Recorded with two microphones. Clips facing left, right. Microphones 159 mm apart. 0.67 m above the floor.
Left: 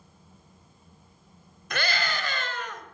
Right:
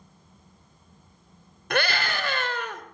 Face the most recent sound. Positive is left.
turn(degrees=-65)  # may be behind; listen again after turning